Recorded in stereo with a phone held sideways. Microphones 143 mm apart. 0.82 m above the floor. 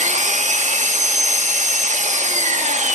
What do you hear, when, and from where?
0.0 s an engine running: 60° right (ahead or behind), 1.0 m